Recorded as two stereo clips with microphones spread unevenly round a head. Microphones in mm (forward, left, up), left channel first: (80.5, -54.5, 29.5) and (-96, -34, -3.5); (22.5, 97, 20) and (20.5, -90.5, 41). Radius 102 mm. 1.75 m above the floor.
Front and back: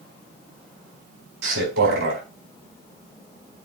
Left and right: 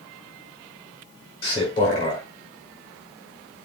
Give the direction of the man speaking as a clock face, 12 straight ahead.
7 o'clock.